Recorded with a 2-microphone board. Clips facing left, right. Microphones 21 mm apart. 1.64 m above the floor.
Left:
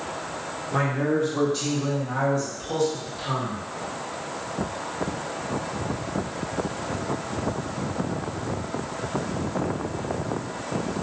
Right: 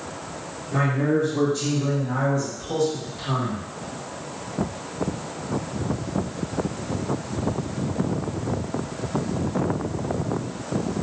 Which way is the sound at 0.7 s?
35° left (ahead or behind).